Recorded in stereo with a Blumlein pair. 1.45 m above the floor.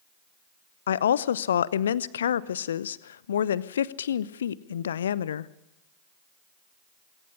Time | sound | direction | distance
0.9 | a woman speaking | 65° left | 0.8 m